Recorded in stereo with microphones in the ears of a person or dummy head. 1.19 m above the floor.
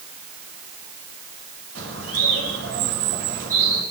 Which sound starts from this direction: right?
A bird, at 1.8 s.